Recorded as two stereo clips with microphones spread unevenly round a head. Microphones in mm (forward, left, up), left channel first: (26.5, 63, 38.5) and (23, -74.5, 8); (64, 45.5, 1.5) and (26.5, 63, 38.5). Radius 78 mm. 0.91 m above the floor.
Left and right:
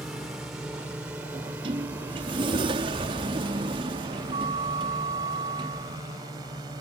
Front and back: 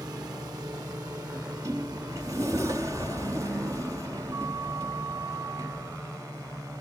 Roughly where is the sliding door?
Behind right.